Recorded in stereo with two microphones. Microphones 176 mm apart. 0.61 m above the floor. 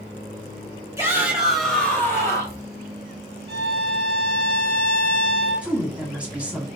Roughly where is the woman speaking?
Centre.